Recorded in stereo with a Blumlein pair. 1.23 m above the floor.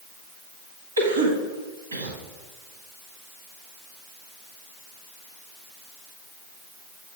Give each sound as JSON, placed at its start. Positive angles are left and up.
{"t": 1.0, "sound": "a cough", "azimuth_deg": -70, "distance_m": 1.3}